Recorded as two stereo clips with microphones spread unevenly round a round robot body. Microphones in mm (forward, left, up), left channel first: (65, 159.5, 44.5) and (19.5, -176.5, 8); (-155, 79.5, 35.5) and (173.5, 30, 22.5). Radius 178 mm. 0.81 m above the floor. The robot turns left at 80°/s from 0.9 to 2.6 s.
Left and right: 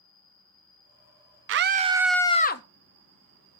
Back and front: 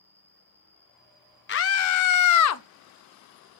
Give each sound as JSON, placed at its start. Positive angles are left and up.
{"t": 0.0, "sound": "an insect", "azimuth_deg": 70, "distance_m": 4.0}
{"t": 1.5, "sound": "a scream", "azimuth_deg": -135, "distance_m": 0.9}